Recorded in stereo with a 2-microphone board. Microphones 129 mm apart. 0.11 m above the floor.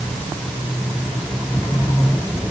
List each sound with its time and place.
Only background noise.